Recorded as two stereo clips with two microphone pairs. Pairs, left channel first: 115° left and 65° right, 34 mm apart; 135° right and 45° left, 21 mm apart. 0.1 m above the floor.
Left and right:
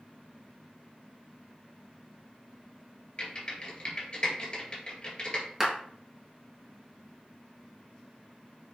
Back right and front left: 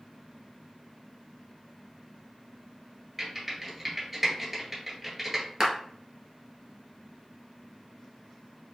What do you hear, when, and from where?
3.2 s typing on a keyboard: 115° left, 1.7 m
5.6 s a clap: straight ahead, 1.2 m